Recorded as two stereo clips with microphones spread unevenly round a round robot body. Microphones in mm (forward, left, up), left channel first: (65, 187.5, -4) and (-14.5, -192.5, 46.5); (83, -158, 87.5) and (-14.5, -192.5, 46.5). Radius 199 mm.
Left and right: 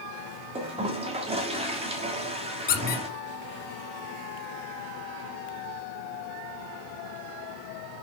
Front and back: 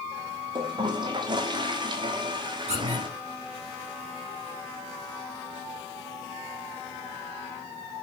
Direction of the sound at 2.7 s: 150° left.